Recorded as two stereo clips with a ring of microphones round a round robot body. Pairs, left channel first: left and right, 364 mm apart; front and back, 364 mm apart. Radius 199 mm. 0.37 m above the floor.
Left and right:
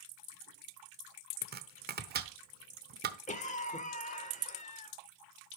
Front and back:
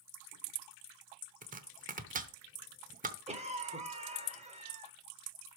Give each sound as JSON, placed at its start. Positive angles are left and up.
{"t": 1.4, "sound": "chopping", "azimuth_deg": -130, "distance_m": 0.9}
{"t": 3.3, "sound": "a cough", "azimuth_deg": 130, "distance_m": 1.2}